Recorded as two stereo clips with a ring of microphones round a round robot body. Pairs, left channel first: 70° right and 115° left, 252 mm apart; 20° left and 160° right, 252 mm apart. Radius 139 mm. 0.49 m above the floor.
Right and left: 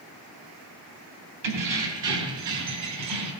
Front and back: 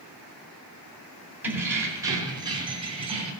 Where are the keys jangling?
120° left, 3 m; by 3.3 s 135° left, 3.5 m.